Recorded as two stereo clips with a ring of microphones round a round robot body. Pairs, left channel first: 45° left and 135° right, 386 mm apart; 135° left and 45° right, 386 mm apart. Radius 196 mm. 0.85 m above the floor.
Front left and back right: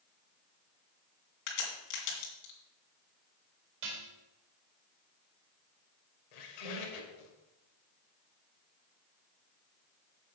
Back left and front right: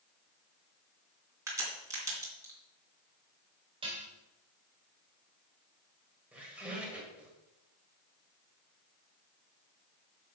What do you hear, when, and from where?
1.5 s a crack: 40° left, 3 m
3.8 s dishes clattering: 120° right, 2.5 m
6.3 s a squeak: 40° left, 2.0 m